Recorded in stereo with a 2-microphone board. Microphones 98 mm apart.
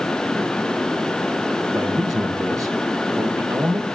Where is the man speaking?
35° right (ahead or behind), 1.9 m.